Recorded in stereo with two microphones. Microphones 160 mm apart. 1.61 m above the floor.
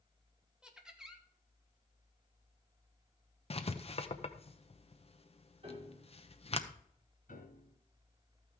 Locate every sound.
0.6 s laughter: 5° right (ahead or behind), 1.9 m
3.5 s writing: 40° left (ahead or behind), 0.8 m
5.6 s a piano: 35° right (ahead or behind), 5 m
7.3 s a piano: 60° left (ahead or behind), 2.5 m